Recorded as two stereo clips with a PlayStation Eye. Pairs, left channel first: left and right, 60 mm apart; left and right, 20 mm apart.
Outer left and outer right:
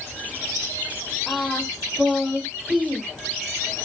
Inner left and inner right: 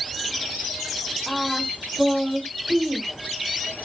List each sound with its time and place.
1.3 s singing: centre (ahead or behind), 4.5 m